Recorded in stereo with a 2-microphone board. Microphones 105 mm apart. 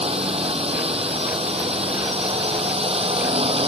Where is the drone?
70° right (ahead or behind).